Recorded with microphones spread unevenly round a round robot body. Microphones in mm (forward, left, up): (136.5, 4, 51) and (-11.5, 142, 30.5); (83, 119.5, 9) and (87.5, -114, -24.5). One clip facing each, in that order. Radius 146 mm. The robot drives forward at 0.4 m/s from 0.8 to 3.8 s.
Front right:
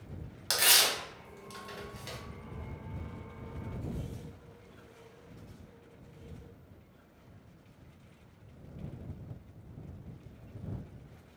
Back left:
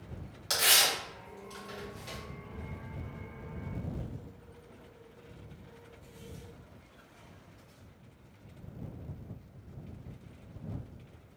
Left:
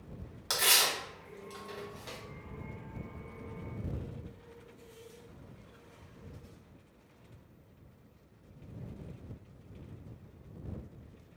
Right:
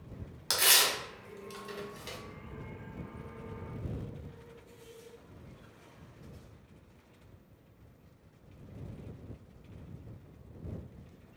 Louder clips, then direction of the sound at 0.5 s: Even, right 1 dB; 35° right.